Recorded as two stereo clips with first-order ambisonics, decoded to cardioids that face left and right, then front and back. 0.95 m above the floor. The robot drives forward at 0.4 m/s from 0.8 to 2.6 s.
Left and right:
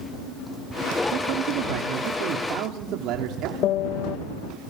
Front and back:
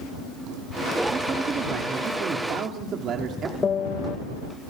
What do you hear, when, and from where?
1.1 s a man speaking: 110° right, 2.0 m; by 3.5 s 125° right, 2 m
3.6 s a piano: 60° left, 0.9 m